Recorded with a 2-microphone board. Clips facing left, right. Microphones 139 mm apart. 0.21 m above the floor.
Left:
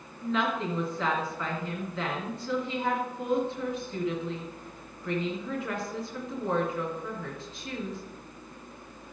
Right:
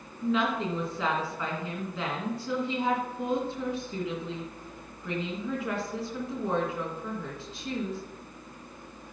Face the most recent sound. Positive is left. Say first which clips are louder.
# right 2 dB
turn(degrees=-5)  # may be behind; listen again after turning